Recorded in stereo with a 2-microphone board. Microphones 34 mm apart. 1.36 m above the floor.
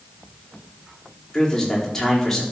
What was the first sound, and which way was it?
A man speaking, 10° left (ahead or behind).